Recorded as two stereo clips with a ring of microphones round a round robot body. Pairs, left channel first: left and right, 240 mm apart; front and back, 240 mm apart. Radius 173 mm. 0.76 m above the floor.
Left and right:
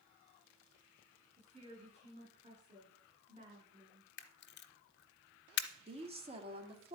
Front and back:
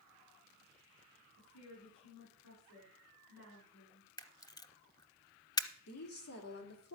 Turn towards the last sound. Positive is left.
turn(degrees=-25)